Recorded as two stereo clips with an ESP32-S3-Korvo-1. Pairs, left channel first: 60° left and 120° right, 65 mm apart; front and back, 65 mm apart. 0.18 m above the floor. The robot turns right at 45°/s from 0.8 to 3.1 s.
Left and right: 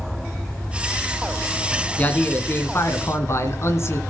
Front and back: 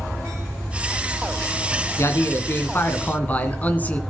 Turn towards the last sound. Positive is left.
turn(degrees=55)